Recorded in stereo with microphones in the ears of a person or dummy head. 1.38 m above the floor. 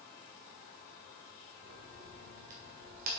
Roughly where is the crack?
Right.